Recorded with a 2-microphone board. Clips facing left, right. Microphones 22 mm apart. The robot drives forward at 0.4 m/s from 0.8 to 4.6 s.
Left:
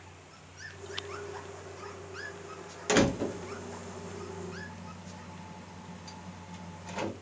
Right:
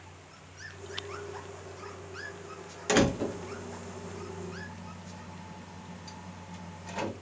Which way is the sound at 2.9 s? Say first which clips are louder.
Even; centre (ahead or behind).